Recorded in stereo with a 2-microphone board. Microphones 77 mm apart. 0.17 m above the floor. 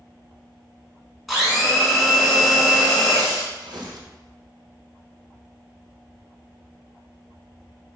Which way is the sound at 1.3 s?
Centre (ahead or behind).